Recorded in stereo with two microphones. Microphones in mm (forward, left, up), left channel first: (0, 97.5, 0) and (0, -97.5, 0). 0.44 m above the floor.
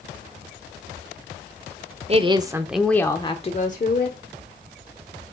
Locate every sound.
2.1 s a woman speaking: 30° right (ahead or behind), 1.1 m; by 4.2 s 55° left (ahead or behind), 1.4 m